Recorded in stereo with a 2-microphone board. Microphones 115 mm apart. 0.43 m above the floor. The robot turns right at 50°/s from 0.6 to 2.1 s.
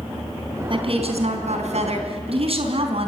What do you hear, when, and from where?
0.7 s a woman speaking: 130° right, 4 m; by 3.1 s 60° right, 4 m